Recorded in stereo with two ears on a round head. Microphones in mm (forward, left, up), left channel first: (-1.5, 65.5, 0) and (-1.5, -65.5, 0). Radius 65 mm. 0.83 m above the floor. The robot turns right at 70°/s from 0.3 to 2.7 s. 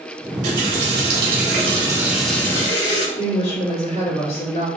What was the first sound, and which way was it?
A running tap, 135° right.